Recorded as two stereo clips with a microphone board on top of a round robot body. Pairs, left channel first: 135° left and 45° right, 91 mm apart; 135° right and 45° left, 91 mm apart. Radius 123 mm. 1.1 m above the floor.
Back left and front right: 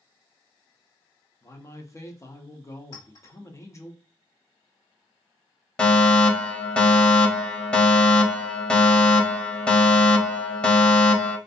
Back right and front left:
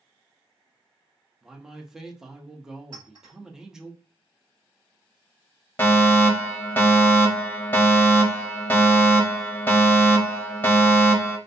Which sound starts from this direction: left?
A clink, at 2.9 s.